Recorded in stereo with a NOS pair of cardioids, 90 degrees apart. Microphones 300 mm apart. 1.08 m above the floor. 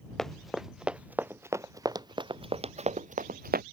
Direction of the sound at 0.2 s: Straight ahead.